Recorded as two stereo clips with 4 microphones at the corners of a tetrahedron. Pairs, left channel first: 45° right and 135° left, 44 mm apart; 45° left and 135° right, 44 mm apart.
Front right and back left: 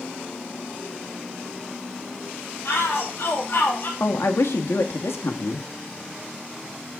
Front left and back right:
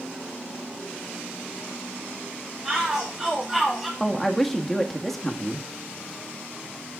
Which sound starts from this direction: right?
A shout, at 2.6 s.